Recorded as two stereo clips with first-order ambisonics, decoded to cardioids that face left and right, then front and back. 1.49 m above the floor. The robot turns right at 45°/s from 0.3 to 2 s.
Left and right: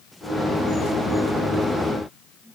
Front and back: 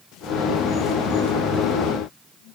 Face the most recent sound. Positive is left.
No sound to turn to.